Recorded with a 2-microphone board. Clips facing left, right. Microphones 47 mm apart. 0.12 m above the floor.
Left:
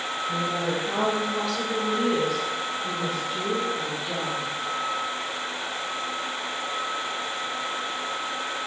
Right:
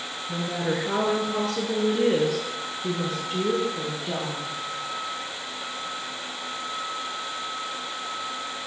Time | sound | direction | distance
0.3 | a woman speaking | 15° right (ahead or behind) | 1.8 m